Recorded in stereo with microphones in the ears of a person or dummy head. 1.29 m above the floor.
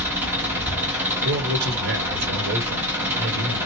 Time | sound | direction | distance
0.0 | an engine running | 10° right (ahead or behind) | 0.9 m
1.2 | a man speaking | 55° right (ahead or behind) | 1.2 m